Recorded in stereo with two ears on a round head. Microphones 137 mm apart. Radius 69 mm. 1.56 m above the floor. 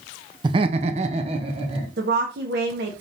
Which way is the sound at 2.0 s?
75° right (ahead or behind).